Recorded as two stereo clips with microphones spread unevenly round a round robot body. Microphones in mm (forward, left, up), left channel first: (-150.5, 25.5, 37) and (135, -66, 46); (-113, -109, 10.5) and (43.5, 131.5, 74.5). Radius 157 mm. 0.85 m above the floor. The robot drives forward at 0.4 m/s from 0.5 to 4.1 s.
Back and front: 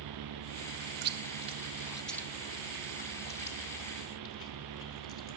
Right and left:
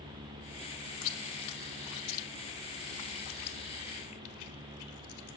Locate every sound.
1.0 s chewing: 70° right, 0.7 m; by 5.4 s 150° right, 1.2 m